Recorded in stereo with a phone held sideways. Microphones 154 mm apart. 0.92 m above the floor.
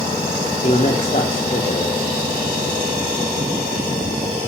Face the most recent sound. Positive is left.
turn(degrees=45)  # may be behind; listen again after turning